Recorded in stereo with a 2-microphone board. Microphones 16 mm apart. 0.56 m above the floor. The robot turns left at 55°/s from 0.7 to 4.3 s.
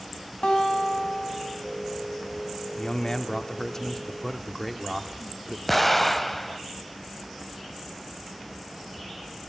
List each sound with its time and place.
0.4 s a guitar: 100° left, 3 m; by 1.6 s 50° left, 3 m
2.8 s a man speaking: 90° left, 1.2 m; by 5.6 s 5° left, 1.2 m
5.7 s an explosion: 5° left (ahead or behind), 0.6 m